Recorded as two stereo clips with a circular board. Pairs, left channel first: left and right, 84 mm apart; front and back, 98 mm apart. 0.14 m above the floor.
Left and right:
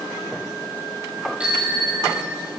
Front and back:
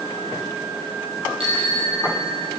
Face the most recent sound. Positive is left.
turn(degrees=-165)